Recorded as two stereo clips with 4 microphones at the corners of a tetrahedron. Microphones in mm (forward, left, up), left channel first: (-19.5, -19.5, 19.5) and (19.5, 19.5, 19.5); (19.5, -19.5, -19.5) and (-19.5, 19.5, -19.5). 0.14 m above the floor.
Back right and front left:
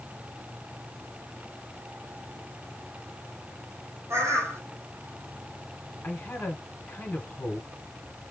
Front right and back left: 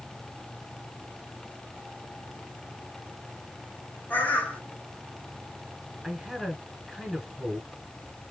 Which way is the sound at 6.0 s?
140° right.